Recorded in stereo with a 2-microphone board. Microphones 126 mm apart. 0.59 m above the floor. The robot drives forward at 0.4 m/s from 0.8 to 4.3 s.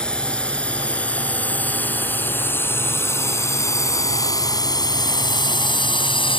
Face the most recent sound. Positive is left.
turn(degrees=45)  # may be behind; listen again after turning